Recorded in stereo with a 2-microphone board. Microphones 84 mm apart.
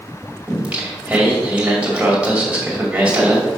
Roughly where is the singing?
Centre.